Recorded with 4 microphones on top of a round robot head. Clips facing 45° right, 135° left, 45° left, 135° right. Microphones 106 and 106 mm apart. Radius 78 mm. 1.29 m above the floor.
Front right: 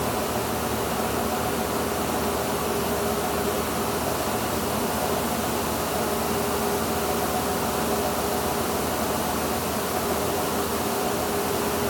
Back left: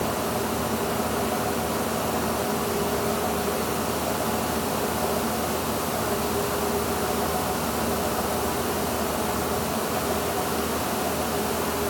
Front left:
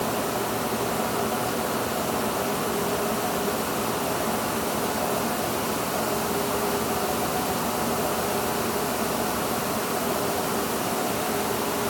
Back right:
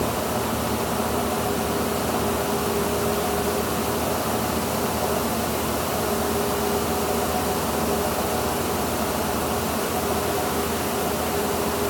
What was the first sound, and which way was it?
Only background noise.